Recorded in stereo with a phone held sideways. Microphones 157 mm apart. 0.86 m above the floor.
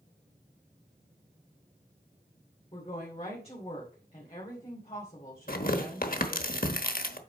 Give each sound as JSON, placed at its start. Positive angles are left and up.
{"t": 2.7, "sound": "a woman speaking", "side_deg": 40, "distance_m": 2.5}
{"t": 5.5, "sound": "tearing paper", "side_deg": 65, "distance_m": 1.1}